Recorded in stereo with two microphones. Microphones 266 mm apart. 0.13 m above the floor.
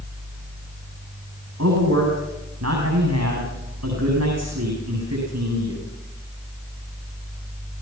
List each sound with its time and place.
1.6 s a man speaking: 70° right (ahead or behind), 8.5 m